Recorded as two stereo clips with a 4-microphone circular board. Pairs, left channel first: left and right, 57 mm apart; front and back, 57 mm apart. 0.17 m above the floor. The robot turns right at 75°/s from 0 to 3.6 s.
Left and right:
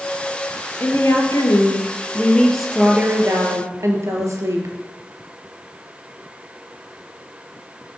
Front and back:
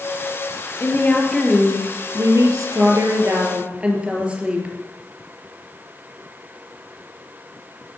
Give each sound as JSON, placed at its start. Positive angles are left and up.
{"t": 0.8, "sound": "a woman speaking", "azimuth_deg": 40, "distance_m": 3.5}